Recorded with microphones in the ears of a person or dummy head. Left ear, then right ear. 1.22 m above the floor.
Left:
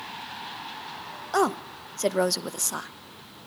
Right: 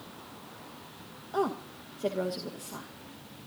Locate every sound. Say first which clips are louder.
1.3 s a woman speaking: left 7 dB; 70° left (ahead or behind), 0.9 m